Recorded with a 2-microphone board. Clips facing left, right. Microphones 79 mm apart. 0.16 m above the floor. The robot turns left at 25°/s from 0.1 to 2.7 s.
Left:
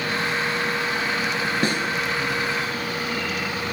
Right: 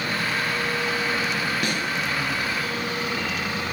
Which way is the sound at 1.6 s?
35° left (ahead or behind).